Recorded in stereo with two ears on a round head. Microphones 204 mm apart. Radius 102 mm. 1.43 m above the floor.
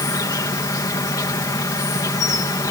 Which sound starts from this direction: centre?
An insect, at 0.0 s.